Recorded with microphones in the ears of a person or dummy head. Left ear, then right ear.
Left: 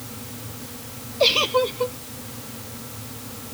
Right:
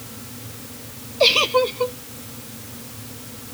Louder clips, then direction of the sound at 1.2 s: Right 2 dB; 10° right (ahead or behind).